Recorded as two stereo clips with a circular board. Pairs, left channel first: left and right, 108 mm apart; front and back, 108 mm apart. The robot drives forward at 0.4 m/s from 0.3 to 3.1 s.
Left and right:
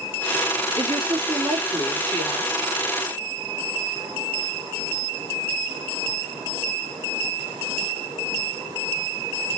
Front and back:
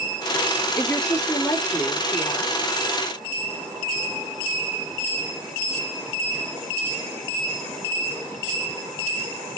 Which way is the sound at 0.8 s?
85° right.